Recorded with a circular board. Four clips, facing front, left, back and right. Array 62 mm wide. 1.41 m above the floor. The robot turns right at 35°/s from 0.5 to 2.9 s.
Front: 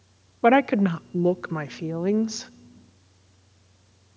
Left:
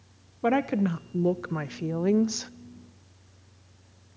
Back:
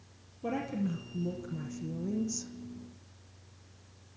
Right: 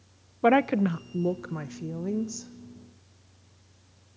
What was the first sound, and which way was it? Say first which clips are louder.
A woman speaking: right 3 dB, front 16 dB; 20° right.